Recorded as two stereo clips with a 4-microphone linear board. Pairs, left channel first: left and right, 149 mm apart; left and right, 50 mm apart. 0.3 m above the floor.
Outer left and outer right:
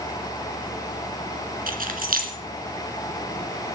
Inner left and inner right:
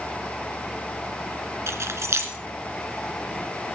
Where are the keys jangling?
75° right (ahead or behind), 2 m.